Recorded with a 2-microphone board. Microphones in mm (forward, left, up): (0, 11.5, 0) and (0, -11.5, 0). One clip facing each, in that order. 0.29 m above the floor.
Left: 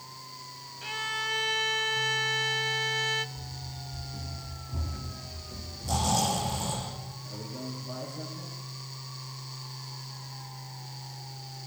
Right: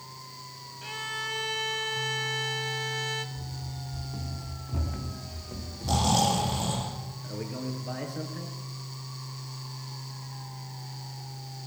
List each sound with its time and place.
0.8 s a violin: 5° left (ahead or behind), 0.7 m
3.4 s running footsteps: 15° right (ahead or behind), 4 m; by 6.8 s 45° right (ahead or behind), 3 m
5.8 s snoring: 20° right (ahead or behind), 10 m
7.2 s a man speaking: 75° right (ahead or behind), 6 m